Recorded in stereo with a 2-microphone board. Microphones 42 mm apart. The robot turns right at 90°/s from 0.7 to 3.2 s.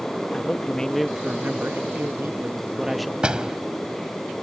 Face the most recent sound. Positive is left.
turn(degrees=-25)  # may be behind; listen again after turning